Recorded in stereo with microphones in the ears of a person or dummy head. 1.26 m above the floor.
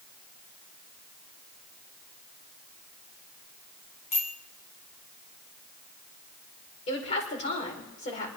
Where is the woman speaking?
35° left (ahead or behind), 4.5 m.